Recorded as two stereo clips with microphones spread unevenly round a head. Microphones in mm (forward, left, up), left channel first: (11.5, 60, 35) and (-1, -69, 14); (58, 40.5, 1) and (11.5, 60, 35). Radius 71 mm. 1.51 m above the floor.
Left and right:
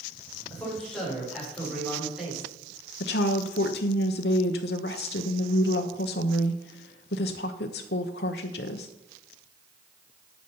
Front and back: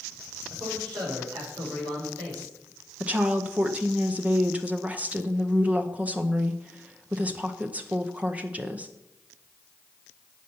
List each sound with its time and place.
0.5 s a man speaking: 170° left, 6 m; by 2.5 s straight behind, 5.5 m
3.0 s a woman speaking: 95° left, 0.8 m